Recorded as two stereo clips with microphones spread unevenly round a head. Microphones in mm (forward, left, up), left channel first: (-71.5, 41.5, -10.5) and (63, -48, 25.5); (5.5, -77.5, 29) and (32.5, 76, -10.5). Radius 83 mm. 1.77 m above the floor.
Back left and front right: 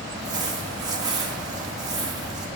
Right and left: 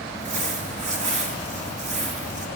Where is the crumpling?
30° left, 2 m.